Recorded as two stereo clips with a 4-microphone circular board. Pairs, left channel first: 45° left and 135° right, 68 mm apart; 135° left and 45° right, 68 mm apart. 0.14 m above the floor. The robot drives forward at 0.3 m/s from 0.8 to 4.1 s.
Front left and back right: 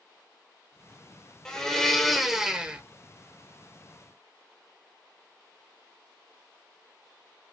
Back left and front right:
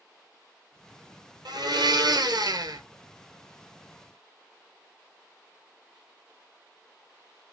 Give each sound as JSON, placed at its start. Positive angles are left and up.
{"t": 1.4, "sound": "a blender", "azimuth_deg": -35, "distance_m": 0.8}